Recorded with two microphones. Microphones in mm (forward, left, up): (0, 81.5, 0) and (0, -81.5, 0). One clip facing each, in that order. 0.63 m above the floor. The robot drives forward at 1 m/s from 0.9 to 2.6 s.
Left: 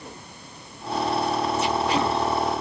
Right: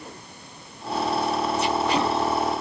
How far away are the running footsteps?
No running footsteps in this recording.